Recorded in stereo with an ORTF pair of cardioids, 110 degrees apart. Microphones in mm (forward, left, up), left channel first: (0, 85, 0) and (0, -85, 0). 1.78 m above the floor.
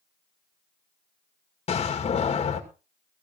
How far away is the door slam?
About 2 m.